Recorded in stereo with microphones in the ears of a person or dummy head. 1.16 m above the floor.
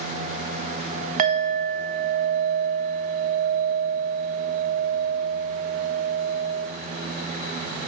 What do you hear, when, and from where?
1.2 s a clink: 50° right (ahead or behind), 0.5 m